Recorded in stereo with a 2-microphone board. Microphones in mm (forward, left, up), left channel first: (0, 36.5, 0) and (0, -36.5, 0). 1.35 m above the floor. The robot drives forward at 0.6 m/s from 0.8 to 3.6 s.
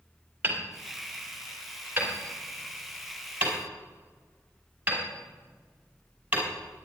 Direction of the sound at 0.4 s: 30° right (ahead or behind).